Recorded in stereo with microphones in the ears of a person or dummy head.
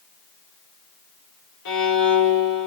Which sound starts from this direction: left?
A violin, at 1.6 s.